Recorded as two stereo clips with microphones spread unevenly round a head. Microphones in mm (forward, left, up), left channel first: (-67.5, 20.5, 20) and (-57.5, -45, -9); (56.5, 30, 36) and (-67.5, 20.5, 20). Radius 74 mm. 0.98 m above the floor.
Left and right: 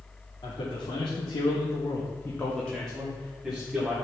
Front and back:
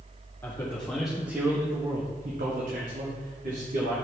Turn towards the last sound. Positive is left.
turn(degrees=-160)